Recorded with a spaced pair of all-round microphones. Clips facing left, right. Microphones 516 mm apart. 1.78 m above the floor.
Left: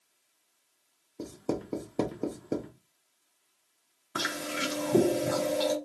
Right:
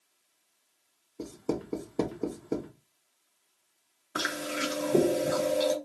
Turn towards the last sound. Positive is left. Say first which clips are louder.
# right 1 dB
turn(degrees=20)  # may be behind; listen again after turning